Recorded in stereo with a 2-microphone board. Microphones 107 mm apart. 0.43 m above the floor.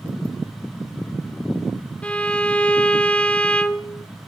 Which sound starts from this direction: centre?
A violin, at 2.0 s.